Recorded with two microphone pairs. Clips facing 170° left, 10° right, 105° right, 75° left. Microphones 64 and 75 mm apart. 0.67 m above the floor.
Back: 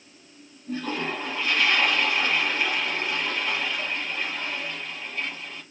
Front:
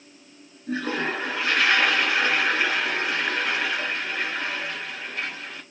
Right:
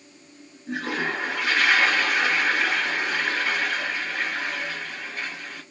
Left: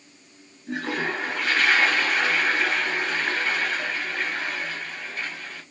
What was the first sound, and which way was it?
A toilet flushing, 30° right.